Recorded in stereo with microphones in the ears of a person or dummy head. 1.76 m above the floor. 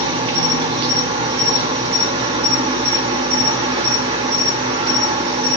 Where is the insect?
35° right (ahead or behind), 1.7 m.